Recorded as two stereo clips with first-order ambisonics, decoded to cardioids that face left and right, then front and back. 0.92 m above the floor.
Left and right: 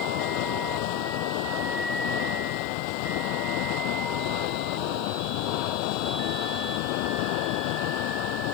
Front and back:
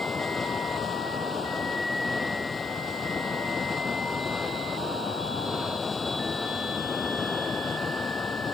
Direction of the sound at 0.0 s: 75° left.